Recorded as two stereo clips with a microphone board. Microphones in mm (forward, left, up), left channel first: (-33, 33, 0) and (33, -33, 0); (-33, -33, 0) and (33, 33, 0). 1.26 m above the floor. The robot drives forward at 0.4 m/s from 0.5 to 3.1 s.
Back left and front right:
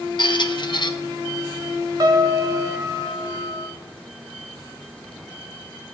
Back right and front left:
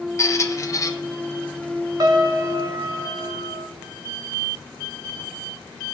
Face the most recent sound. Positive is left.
turn(degrees=0)